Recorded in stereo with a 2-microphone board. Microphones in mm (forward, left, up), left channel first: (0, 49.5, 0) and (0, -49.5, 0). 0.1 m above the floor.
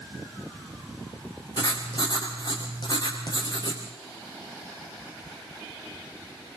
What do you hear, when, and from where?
1.6 s writing: 50° left (ahead or behind), 5 m